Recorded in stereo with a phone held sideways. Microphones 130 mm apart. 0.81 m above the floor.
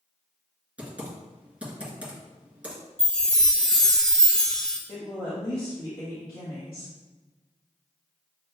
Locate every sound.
0.8 s typing on a keyboard: 10° right (ahead or behind), 1.6 m
3.0 s a chime: 5° left (ahead or behind), 0.7 m
4.9 s a woman speaking: 40° left (ahead or behind), 1.4 m